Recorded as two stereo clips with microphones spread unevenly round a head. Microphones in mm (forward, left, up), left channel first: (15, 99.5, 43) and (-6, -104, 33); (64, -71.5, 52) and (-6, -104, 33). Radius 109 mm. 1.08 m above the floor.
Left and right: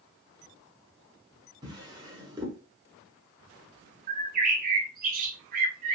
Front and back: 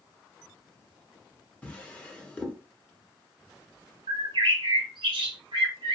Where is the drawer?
25° right, 0.9 m.